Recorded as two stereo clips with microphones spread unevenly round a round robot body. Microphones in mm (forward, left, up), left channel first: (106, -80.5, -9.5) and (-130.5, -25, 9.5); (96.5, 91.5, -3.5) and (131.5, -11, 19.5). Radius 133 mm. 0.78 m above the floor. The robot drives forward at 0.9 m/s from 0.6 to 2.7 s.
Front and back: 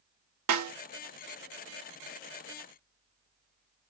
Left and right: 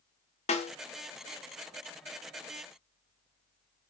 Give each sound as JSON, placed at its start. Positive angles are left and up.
{"t": 0.5, "sound": "a snare drum", "azimuth_deg": 135, "distance_m": 1.1}